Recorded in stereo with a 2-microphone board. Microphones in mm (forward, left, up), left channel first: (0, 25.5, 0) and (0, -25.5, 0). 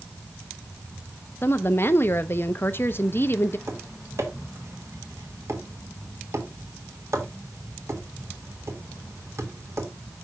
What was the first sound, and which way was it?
A woman speaking, 45° left (ahead or behind).